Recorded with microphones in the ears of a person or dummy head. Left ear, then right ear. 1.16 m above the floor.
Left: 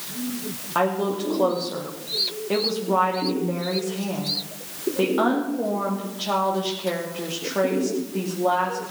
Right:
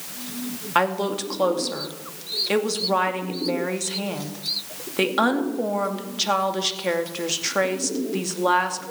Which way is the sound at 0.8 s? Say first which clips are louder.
Right 1 dB; 65° right (ahead or behind).